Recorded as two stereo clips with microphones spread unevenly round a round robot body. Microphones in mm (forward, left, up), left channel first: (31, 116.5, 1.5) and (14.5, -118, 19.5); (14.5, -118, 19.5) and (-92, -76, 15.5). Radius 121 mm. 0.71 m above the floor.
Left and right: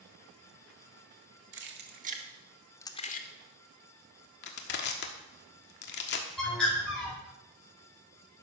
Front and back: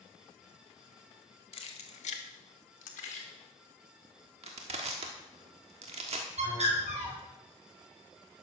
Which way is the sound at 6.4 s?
170° left.